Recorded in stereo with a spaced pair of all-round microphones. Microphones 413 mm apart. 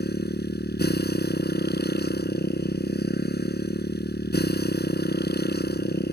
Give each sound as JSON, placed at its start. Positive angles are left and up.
{"t": 0.0, "sound": "a motorcycle", "side_deg": 25}